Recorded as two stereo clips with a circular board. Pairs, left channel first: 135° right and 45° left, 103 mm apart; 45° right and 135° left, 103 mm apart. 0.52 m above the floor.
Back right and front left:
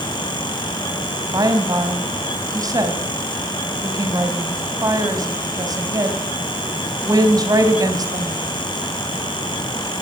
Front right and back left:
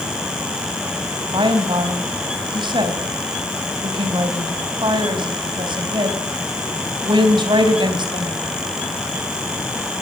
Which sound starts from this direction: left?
A woman speaking, at 1.3 s.